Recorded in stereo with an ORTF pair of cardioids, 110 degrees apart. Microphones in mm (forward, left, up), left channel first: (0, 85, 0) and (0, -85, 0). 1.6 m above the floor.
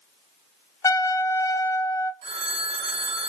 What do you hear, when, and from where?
0.8 s a trumpet: 15° left, 0.5 m
2.2 s a phone ringing: 70° right, 1.8 m